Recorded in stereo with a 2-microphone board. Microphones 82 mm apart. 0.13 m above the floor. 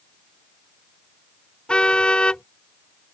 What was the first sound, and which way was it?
A car horn, 10° left (ahead or behind).